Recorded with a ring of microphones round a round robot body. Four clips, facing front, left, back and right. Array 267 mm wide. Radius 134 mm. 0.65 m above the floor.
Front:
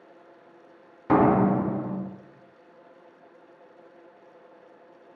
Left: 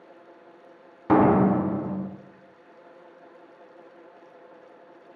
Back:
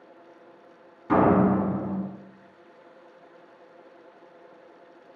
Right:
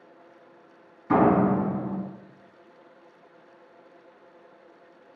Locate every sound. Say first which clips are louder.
1.1 s a door slam: left 2 dB, even; 65° left, 1.5 m